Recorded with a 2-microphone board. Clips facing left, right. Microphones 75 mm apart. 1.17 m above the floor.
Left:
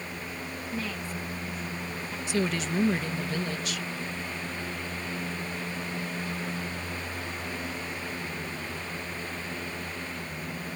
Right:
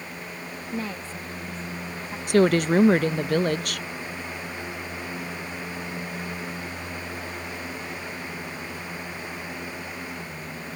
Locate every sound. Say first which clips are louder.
0.7 s a woman speaking: right 3 dB; 30° right (ahead or behind)
2.3 s a woman speaking: right 11 dB; 55° right (ahead or behind)